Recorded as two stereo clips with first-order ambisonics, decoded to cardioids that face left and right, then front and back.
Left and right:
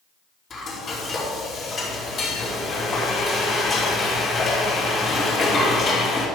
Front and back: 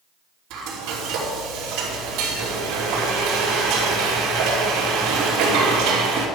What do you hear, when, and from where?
0.5 s frying: 155° left, 3 m